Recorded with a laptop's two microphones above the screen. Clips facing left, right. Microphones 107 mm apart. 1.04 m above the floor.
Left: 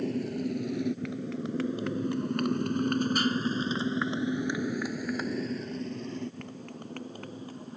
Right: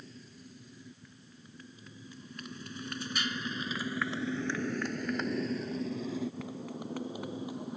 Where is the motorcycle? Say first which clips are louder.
Left 21 dB; 70° left (ahead or behind); by 7.8 s 15° right (ahead or behind).